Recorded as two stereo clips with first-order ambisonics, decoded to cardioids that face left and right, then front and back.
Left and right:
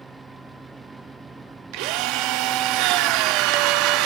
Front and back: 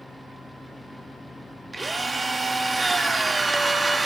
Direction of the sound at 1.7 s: 100° right.